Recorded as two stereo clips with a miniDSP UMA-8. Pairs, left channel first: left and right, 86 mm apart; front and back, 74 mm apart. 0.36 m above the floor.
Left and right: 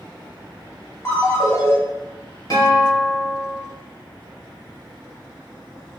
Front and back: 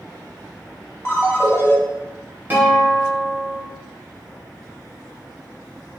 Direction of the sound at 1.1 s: 45° left.